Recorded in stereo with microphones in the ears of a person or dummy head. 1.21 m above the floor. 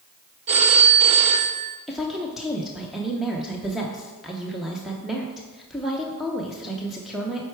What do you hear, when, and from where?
0.5 s a phone ringing: 40° right (ahead or behind), 0.6 m
1.9 s a woman speaking: centre (ahead or behind), 0.7 m